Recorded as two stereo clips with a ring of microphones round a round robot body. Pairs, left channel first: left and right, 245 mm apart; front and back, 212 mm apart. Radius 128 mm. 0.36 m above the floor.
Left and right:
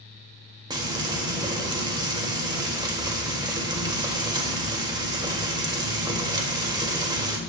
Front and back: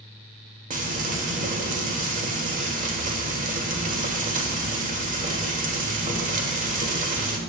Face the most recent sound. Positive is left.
turn(degrees=-155)